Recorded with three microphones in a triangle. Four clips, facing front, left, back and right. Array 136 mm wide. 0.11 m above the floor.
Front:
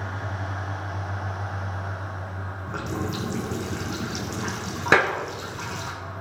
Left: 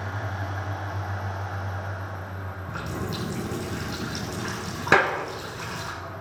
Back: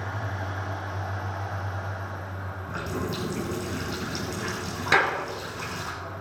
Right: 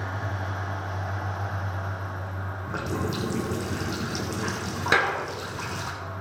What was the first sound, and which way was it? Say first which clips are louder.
A running tap: right 3 dB, front 1 dB; 55° right.